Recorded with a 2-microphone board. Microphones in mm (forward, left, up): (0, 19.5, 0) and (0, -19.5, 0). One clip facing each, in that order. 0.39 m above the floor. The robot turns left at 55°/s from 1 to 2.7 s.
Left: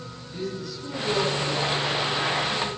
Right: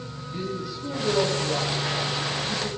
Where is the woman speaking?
20° right (ahead or behind), 9 m; by 2.7 s 70° right (ahead or behind), 9 m.